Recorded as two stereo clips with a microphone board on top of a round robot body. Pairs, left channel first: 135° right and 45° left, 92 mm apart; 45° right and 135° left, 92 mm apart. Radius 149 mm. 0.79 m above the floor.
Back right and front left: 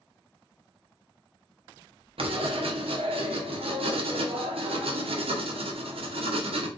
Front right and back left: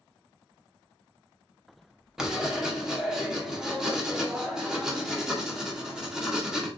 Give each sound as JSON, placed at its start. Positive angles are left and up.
{"t": 2.2, "sound": "writing", "azimuth_deg": 50, "distance_m": 1.0}